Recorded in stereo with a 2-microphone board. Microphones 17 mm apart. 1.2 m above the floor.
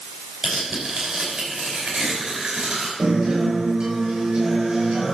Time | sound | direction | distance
0.4 | tearing paper | 85° right | 5 m
3.0 | a guitar | 85° right | 6 m